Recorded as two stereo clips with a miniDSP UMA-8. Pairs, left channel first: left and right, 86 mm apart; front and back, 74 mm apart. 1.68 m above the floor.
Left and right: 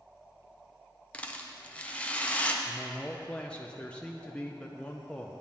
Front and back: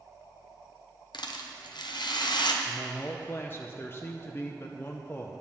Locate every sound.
1.1 s a rattle: 15° left, 0.9 m
2.6 s a man speaking: 20° left, 0.7 m